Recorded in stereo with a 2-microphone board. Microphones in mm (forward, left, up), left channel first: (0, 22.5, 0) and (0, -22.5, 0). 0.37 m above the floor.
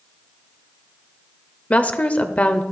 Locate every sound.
1.7 s a woman speaking: 30° left (ahead or behind), 1.0 m